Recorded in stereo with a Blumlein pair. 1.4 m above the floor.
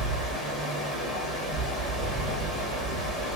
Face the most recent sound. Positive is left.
turn(degrees=-10)